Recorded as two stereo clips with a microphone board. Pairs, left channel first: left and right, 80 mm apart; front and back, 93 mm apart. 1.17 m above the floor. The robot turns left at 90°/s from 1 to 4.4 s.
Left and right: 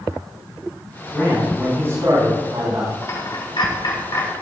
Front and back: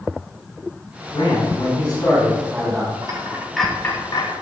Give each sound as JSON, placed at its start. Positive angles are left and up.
{"t": 1.1, "sound": "a man speaking", "azimuth_deg": 30, "distance_m": 5.5}
{"t": 3.0, "sound": "a dropped coin", "azimuth_deg": 145, "distance_m": 4.0}